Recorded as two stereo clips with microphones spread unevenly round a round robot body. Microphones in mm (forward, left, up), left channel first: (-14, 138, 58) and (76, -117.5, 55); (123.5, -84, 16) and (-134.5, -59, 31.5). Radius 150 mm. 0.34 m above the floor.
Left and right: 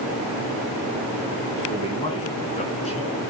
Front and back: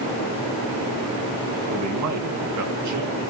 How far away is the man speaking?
About 3 m.